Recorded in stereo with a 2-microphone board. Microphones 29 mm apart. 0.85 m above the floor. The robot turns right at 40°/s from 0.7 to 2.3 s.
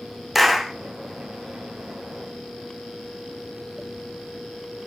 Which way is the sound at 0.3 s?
5° right (ahead or behind).